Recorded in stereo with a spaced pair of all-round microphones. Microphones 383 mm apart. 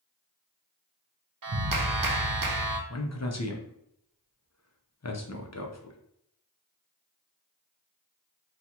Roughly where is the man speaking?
Left.